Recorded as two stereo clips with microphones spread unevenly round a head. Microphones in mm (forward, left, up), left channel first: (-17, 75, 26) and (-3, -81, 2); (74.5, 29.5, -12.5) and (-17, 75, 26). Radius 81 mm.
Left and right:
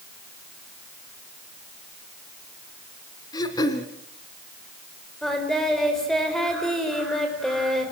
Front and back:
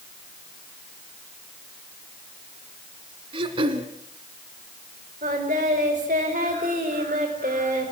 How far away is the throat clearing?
About 1.9 m.